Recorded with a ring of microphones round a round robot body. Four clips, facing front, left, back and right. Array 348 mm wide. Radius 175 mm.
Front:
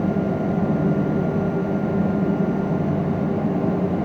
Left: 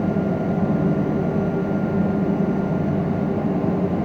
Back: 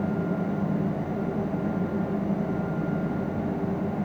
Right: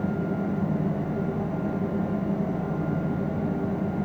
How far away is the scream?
No scream in this recording.